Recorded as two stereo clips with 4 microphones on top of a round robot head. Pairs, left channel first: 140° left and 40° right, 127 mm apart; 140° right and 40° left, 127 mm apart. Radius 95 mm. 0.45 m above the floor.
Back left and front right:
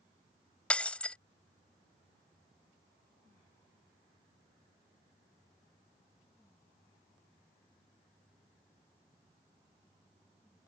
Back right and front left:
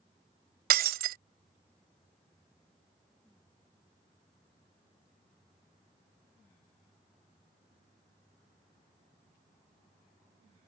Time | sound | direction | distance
0.7 | breaking glass | 55° left | ?